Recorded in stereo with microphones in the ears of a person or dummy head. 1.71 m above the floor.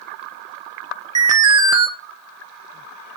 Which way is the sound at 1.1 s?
25° right (ahead or behind).